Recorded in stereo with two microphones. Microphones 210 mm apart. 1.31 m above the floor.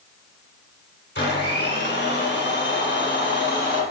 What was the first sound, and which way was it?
A blender, 55° left (ahead or behind).